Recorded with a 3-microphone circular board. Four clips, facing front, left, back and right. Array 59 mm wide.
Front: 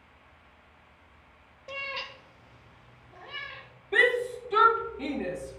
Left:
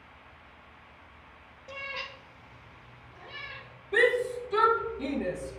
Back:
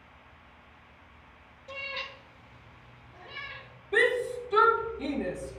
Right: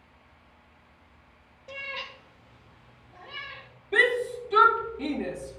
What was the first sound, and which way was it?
A cat meowing, 5° right.